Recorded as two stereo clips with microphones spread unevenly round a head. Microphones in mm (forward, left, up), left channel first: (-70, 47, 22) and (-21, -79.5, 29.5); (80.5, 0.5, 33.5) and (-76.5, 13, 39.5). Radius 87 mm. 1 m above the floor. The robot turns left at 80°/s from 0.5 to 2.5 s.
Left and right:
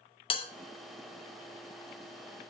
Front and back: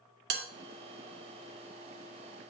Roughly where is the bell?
Behind.